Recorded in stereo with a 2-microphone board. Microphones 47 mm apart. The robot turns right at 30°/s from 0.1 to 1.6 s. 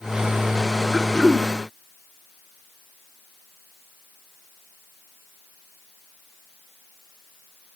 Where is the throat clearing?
25° left (ahead or behind), 0.6 m; by 1.5 s 20° left (ahead or behind), 0.6 m.